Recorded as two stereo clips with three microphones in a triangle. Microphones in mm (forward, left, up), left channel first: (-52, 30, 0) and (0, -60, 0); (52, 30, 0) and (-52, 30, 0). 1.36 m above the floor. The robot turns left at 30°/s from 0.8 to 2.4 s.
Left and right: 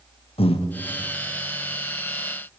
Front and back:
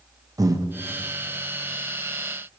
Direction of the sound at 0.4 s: 125° left.